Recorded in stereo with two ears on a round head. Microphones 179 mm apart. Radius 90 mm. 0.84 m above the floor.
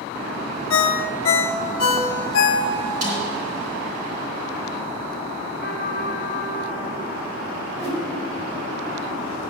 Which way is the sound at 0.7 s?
70° left (ahead or behind).